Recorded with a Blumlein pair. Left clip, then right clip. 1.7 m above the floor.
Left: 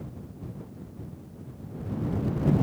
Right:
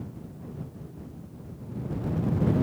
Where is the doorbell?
I don't hear a doorbell.